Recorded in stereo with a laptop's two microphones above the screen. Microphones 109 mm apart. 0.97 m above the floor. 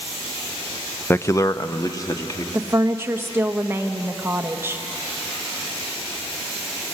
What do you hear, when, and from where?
1.1 s a man speaking: 20° left (ahead or behind), 0.5 m; by 2.4 s 35° left (ahead or behind), 2 m
2.5 s a woman speaking: 20° right (ahead or behind), 1.3 m